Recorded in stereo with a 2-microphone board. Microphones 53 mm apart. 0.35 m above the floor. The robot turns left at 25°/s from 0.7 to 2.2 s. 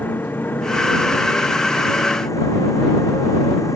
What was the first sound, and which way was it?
A motorcycle, 40° left (ahead or behind).